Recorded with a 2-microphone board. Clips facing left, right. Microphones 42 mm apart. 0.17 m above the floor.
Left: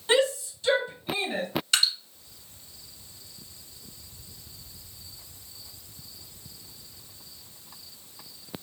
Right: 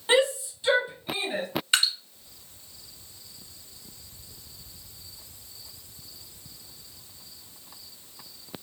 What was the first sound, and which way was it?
A shout, 20° right (ahead or behind).